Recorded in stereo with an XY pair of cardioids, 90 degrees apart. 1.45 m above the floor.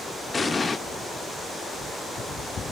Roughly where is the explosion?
Ahead left.